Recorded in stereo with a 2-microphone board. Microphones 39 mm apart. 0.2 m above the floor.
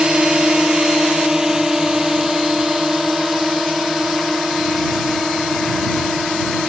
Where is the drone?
20° right (ahead or behind); by 6.7 s centre (ahead or behind).